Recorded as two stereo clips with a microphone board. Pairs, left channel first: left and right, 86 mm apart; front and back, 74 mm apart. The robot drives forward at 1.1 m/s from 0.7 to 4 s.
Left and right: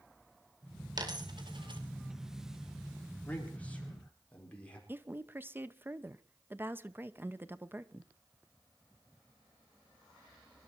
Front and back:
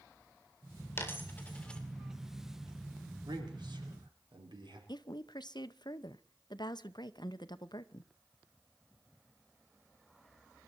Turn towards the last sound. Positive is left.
turn(degrees=-25)